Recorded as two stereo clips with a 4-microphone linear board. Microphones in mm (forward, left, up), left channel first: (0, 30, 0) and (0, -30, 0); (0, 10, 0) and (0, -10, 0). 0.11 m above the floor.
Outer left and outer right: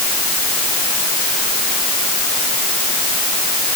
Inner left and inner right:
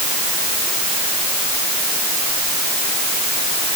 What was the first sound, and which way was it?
Only background noise.